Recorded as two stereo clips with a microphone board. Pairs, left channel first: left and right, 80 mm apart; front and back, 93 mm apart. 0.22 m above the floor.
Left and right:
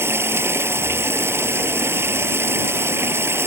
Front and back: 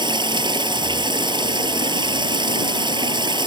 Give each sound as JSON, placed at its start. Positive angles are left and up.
{"t": 0.0, "sound": "running water", "azimuth_deg": -145}